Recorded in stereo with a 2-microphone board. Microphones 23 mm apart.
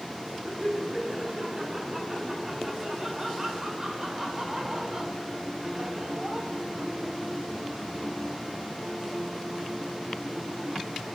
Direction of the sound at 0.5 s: 15° right (ahead or behind).